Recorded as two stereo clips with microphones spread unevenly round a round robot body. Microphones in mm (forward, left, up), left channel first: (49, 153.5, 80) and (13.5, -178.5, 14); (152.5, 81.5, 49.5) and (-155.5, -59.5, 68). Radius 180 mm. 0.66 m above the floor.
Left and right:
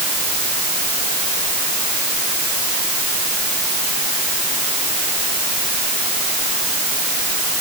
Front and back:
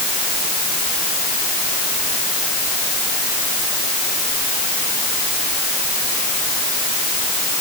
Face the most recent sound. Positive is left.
No sound to turn to.